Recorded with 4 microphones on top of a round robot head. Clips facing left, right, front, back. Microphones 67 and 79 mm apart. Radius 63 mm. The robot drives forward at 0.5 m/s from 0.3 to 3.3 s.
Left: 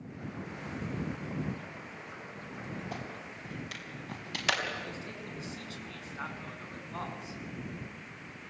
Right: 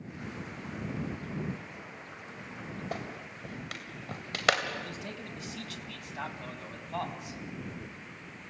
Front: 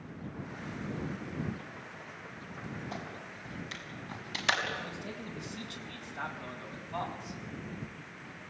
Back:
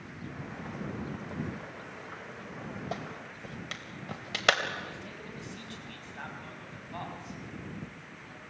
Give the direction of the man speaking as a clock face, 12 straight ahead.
3 o'clock.